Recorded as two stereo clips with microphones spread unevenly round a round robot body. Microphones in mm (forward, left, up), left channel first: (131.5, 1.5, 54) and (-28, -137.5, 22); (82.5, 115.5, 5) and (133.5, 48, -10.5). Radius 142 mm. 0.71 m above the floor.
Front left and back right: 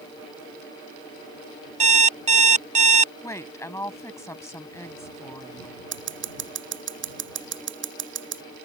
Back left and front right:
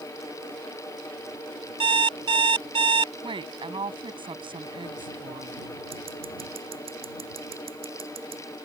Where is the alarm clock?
80° right.